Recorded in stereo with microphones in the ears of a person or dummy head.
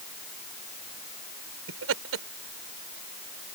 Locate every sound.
1.7 s laughter: 80° right